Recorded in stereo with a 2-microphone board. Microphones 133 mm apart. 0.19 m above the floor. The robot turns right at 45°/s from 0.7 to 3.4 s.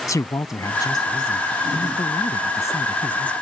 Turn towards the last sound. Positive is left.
turn(degrees=170)